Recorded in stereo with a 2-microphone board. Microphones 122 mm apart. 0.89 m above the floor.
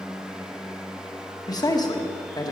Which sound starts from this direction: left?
A man speaking, at 1.5 s.